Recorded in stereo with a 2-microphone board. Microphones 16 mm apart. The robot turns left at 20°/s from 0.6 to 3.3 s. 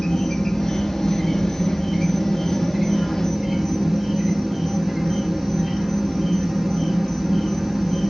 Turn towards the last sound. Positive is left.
turn(degrees=-10)